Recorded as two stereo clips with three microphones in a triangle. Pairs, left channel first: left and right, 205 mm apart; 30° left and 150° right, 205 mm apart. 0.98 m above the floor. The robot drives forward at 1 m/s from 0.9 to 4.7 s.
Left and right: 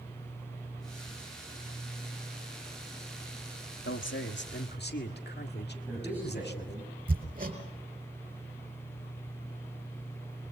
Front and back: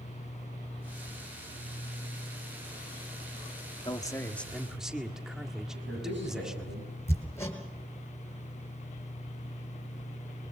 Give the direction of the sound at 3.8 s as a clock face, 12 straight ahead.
9 o'clock.